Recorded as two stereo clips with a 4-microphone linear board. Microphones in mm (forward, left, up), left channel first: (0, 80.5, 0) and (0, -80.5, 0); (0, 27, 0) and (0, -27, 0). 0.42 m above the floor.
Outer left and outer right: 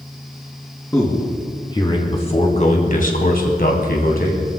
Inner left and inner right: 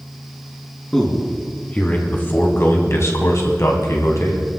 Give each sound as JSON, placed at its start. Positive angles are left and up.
{"t": 0.9, "sound": "a man speaking", "side_deg": 20, "distance_m": 4.0}